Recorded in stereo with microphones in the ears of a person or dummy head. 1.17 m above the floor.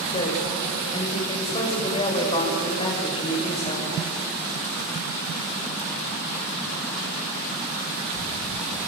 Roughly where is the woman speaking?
Left.